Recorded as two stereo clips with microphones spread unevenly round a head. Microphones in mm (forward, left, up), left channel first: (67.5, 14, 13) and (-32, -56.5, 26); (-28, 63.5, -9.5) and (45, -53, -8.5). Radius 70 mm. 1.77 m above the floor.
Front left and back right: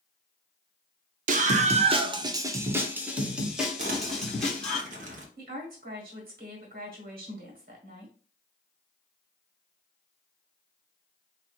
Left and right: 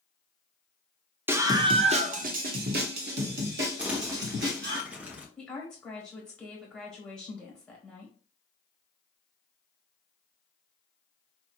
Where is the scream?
135° right, 0.7 m; by 4.8 s 50° right, 1.8 m.